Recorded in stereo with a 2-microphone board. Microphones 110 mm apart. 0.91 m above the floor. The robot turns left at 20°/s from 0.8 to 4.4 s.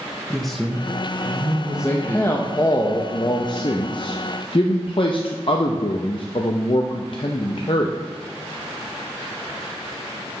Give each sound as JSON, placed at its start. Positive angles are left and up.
{"t": 0.3, "sound": "a man speaking", "side_deg": 0, "distance_m": 0.6}
{"t": 1.8, "sound": "a man speaking", "azimuth_deg": 155, "distance_m": 0.5}